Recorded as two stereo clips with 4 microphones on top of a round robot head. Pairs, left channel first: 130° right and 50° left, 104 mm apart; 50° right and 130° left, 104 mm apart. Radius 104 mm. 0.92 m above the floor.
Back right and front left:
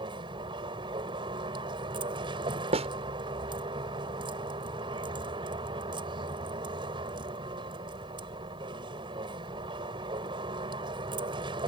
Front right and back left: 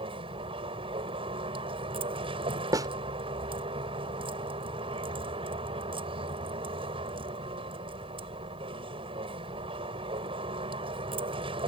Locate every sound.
0.0 s a vehicle: 95° left
2.7 s a snare drum: 75° left